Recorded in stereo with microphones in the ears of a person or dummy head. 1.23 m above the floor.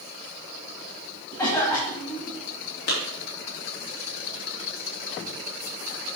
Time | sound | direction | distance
1.4 | a cough | 20° left (ahead or behind) | 1.7 m
2.9 | a clap | 60° left (ahead or behind) | 2.5 m